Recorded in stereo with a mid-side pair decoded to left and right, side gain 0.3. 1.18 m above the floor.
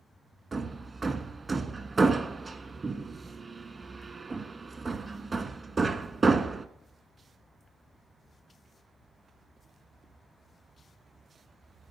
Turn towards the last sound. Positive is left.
turn(degrees=-40)